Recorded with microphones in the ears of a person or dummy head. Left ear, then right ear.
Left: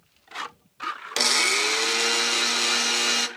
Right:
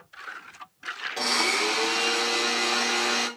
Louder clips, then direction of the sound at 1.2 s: Left 3 dB; 45° left (ahead or behind).